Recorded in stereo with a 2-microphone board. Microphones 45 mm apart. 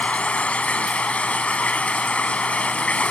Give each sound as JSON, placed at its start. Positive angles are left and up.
{"t": 0.0, "sound": "running water", "side_deg": 30}